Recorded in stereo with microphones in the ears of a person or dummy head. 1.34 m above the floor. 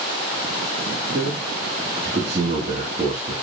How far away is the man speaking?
About 4 m.